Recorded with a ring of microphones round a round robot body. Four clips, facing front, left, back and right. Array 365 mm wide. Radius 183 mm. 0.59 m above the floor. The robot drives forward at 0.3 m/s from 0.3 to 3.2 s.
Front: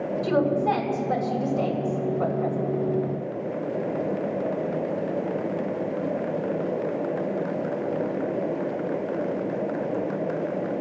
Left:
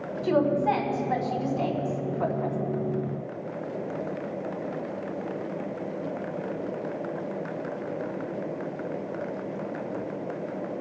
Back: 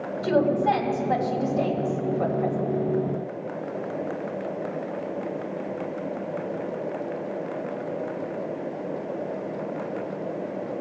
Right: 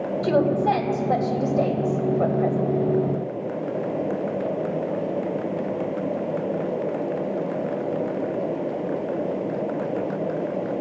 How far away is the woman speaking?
About 3 m.